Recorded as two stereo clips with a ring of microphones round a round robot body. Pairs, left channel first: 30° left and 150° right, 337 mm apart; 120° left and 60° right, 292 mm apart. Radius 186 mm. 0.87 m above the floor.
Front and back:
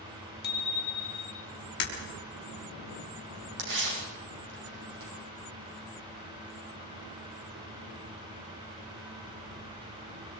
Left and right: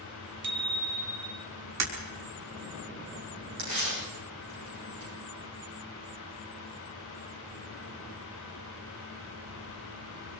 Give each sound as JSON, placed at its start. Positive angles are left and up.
{"t": 0.4, "sound": "a bicycle bell", "azimuth_deg": -35, "distance_m": 3.0}
{"t": 1.8, "sound": "breaking glass", "azimuth_deg": -30, "distance_m": 5.0}
{"t": 3.6, "sound": "tearing paper", "azimuth_deg": -115, "distance_m": 8.0}